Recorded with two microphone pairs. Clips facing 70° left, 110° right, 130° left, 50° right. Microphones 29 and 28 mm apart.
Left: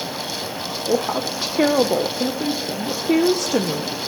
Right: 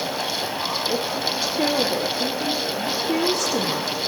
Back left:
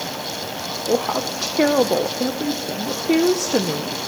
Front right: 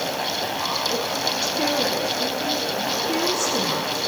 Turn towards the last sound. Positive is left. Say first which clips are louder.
# left 3 dB, back left 3 dB
turn(degrees=110)